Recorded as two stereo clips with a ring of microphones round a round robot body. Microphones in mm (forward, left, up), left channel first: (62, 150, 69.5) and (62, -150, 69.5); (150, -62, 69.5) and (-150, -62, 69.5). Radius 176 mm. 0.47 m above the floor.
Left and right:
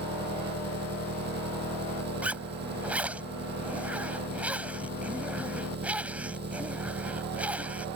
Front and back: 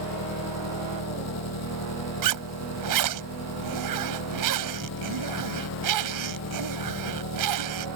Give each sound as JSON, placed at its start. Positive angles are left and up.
{"t": 0.0, "sound": "an engine running", "azimuth_deg": -35}
{"t": 2.2, "sound": "a zipper", "azimuth_deg": -175}